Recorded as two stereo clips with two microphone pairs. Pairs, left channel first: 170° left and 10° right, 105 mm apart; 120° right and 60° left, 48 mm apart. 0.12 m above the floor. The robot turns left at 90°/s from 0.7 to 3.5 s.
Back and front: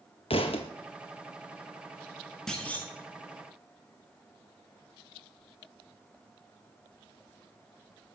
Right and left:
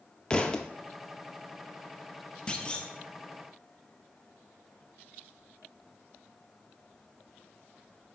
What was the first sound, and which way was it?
A thud, 175° left.